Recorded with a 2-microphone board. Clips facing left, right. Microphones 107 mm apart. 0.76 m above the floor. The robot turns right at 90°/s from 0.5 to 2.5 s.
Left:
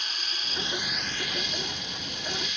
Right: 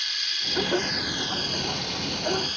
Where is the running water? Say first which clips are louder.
Even; 140° left, 1.6 m; by 2.6 s 40° right, 1.6 m.